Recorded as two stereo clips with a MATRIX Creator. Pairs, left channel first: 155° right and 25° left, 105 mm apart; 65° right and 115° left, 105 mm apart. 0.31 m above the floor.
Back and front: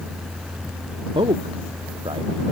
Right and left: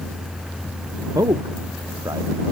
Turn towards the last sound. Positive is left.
turn(degrees=60)